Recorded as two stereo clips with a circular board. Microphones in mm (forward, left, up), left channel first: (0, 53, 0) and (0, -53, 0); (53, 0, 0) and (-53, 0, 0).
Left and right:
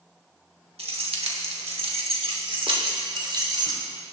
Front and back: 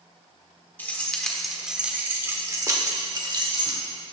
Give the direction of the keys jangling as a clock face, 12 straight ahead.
2 o'clock.